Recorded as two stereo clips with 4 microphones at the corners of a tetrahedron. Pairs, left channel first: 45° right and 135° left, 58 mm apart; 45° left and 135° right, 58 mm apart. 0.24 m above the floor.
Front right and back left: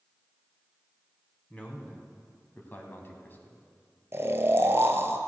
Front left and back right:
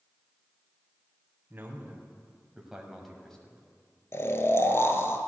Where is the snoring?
90° left, 1.0 m.